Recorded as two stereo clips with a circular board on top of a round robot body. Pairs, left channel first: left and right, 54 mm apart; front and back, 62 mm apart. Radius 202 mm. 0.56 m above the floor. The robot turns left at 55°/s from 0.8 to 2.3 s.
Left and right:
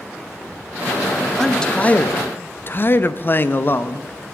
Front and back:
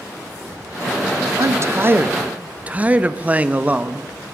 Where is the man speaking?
170° left, 0.9 m; by 4.1 s 120° left, 0.9 m.